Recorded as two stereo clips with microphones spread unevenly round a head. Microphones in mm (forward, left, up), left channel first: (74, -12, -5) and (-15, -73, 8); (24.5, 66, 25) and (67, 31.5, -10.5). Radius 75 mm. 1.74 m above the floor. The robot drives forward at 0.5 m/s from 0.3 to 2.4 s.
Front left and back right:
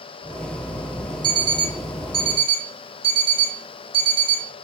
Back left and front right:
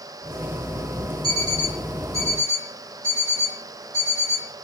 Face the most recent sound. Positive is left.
turn(degrees=-125)